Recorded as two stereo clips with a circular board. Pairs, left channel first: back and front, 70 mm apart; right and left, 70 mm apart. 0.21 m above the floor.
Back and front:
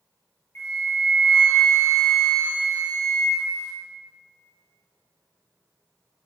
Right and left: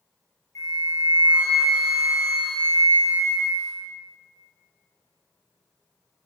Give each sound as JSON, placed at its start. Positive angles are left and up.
{"t": 0.6, "sound": "a flute", "azimuth_deg": -125, "distance_m": 1.6}